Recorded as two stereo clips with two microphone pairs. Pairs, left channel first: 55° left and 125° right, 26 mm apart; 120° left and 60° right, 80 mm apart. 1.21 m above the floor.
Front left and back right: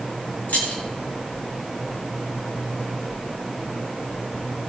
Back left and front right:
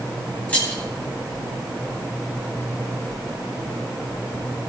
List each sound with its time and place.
0.5 s keys jangling: 45° left, 5.5 m